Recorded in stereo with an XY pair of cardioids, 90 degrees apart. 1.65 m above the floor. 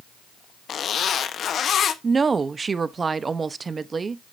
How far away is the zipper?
About 1.1 m.